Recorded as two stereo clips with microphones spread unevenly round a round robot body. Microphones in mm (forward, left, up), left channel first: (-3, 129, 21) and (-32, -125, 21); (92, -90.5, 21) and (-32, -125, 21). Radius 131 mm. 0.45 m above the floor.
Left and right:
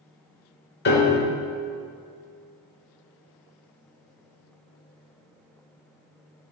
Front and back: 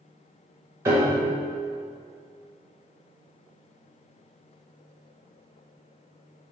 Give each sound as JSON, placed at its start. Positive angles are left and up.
{"t": 0.8, "sound": "a piano", "azimuth_deg": 125, "distance_m": 1.1}